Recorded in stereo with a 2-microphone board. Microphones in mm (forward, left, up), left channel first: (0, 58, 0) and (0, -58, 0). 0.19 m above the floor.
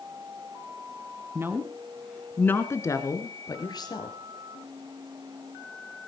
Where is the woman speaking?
25° right (ahead or behind), 1.8 m; by 4.2 s 40° left (ahead or behind), 4.5 m.